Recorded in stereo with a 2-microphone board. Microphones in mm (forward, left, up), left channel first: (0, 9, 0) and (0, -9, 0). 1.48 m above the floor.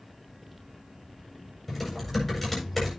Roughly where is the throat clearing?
I don't hear throat clearing.